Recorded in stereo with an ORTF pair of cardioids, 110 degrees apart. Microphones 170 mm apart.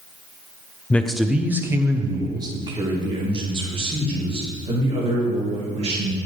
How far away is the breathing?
No breathing in this recording.